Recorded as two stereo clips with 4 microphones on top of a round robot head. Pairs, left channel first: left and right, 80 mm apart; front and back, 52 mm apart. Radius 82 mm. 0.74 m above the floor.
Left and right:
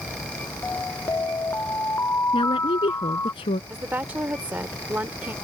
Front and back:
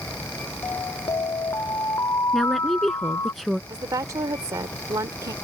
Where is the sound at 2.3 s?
90° left.